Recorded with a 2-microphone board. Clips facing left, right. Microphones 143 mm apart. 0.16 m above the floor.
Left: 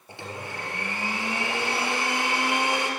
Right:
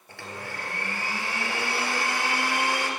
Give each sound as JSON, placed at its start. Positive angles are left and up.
{"t": 0.1, "sound": "a blender", "side_deg": 20, "distance_m": 2.5}